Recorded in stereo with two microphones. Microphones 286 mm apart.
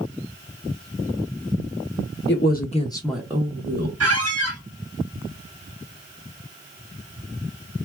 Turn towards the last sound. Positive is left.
turn(degrees=-55)  # may be behind; listen again after turning